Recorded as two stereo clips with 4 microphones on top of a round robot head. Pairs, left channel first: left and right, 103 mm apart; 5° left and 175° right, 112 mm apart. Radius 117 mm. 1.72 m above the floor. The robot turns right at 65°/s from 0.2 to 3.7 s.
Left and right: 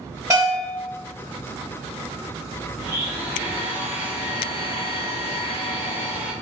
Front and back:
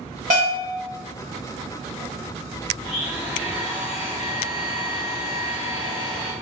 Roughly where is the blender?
Right.